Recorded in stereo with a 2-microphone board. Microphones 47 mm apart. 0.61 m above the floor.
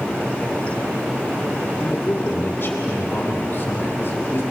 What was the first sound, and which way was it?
A man speaking, 50° left (ahead or behind).